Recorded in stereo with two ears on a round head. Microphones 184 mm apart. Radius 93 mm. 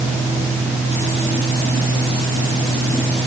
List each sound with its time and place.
Only background noise.